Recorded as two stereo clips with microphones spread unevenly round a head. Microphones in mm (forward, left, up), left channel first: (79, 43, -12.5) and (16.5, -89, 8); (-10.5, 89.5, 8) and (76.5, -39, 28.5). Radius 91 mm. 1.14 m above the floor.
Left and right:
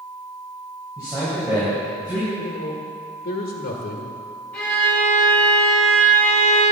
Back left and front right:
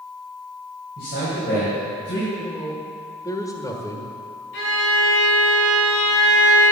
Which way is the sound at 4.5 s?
150° left.